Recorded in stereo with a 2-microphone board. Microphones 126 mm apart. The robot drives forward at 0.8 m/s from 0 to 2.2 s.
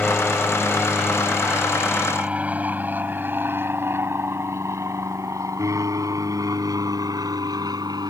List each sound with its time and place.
0.0 s an aircraft: 5° left (ahead or behind); by 8.1 s 30° right (ahead or behind)